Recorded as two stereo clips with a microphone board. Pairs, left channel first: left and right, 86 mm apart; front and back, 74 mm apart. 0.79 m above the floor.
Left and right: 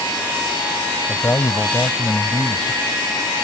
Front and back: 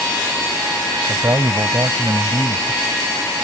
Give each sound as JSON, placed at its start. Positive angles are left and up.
{"t": 1.1, "sound": "a man speaking", "azimuth_deg": 145}